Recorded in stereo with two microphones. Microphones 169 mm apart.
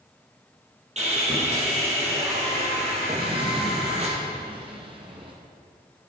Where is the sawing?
40° right (ahead or behind), 3 m.